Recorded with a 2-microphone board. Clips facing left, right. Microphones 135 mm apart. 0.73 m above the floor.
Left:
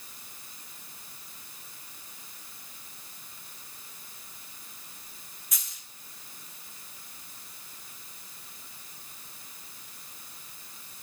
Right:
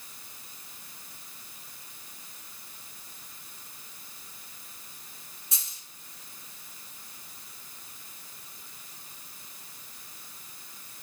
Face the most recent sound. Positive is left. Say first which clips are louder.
# even
turn(degrees=-30)  # may be behind; listen again after turning